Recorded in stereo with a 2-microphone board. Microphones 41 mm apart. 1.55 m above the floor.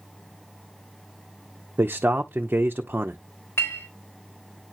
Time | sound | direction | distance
1.8 | a man speaking | 50° right (ahead or behind) | 0.7 m
3.6 | a clink | 70° left (ahead or behind) | 3.5 m